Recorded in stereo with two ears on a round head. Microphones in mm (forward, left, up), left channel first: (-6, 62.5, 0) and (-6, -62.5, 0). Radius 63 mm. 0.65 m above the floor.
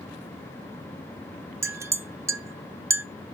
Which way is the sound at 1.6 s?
20° right (ahead or behind).